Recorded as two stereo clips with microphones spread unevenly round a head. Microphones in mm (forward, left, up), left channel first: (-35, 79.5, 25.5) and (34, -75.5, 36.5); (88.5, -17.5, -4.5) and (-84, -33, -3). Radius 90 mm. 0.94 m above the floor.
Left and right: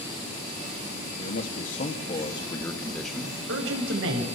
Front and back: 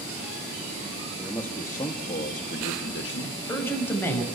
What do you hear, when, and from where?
1.2 s a man speaking: 90° left, 2 m; by 3.3 s 15° left, 1.9 m
3.2 s a man speaking: 75° right, 6.5 m